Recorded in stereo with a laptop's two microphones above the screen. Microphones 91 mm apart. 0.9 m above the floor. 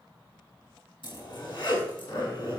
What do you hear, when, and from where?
1.0 s a zipper: 55° left (ahead or behind), 4.5 m